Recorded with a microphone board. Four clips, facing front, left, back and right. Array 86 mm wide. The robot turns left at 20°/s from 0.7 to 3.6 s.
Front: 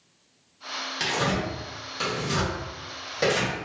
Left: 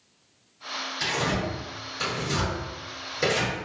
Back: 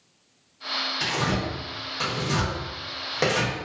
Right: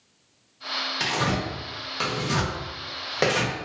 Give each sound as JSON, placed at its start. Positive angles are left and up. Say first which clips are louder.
{"t": 1.0, "sound": "tearing paper", "louder": "right 1 dB, front 1 dB", "azimuth_deg": -65, "distance_m": 1.1}